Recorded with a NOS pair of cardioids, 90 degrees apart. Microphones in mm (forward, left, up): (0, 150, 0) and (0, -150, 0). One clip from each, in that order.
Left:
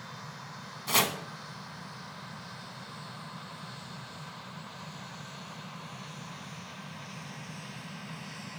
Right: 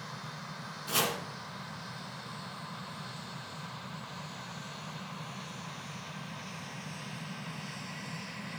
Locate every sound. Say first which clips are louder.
0.9 s chopping: left 4 dB; 45° left, 1.5 m